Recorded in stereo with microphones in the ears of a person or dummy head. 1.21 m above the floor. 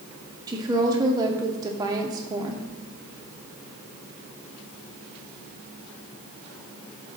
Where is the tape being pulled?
I don't hear tape being pulled.